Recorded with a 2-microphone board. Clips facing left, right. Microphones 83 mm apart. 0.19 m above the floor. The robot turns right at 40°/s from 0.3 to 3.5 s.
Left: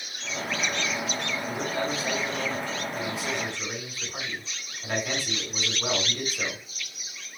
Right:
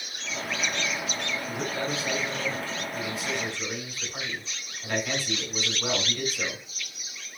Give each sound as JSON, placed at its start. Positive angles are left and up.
{"t": 1.5, "sound": "a man speaking", "azimuth_deg": 70, "distance_m": 2.0}